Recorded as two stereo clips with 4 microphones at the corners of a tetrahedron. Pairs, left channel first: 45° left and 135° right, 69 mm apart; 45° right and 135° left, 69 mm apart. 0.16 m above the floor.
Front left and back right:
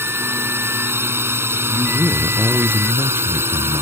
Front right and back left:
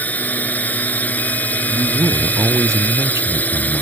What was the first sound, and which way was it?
A drone, 100° right.